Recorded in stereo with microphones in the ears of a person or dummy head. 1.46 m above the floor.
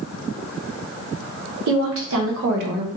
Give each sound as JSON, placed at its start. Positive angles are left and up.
{"t": 1.7, "sound": "a woman speaking", "side_deg": -70, "distance_m": 1.3}